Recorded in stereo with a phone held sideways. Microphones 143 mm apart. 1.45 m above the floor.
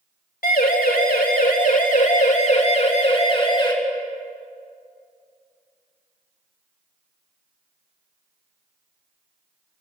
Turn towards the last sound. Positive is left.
turn(degrees=30)  # may be behind; listen again after turning